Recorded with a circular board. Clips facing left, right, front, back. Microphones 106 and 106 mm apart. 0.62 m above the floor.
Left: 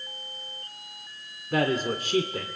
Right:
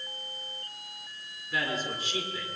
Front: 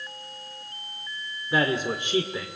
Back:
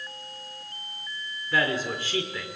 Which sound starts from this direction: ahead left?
A man speaking, at 1.5 s.